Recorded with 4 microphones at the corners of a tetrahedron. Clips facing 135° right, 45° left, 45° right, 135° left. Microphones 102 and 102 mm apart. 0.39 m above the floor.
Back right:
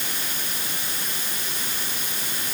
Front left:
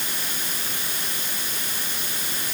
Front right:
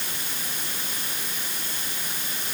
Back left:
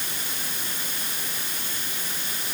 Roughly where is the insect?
No insect in this recording.